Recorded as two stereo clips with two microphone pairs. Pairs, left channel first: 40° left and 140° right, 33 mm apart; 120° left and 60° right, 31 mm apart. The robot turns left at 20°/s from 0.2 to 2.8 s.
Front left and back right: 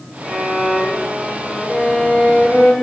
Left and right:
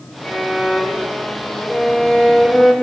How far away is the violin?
About 2.5 m.